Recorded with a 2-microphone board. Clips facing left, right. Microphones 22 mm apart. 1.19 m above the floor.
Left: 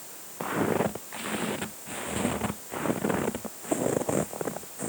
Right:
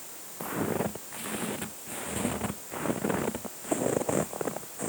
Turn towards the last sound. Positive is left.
turn(degrees=-5)  # may be behind; listen again after turning